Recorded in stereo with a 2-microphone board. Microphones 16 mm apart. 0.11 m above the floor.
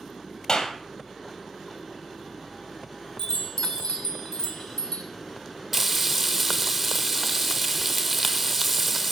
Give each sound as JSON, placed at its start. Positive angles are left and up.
{"t": 0.5, "sound": "a clap", "side_deg": 35, "distance_m": 2.5}
{"t": 3.2, "sound": "a chime", "side_deg": 30, "distance_m": 2.0}
{"t": 5.7, "sound": "frying", "side_deg": -15, "distance_m": 0.7}